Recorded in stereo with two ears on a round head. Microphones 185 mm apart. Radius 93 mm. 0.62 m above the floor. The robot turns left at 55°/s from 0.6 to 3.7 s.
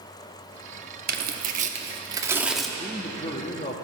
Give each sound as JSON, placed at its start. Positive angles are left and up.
{"t": 1.1, "sound": "tearing paper", "side_deg": -50, "distance_m": 0.8}
{"t": 2.8, "sound": "a man speaking", "azimuth_deg": 140, "distance_m": 0.7}